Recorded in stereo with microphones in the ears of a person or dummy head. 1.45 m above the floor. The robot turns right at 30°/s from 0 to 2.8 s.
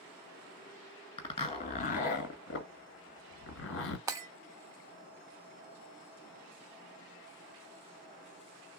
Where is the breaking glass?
15° right (ahead or behind), 0.9 m.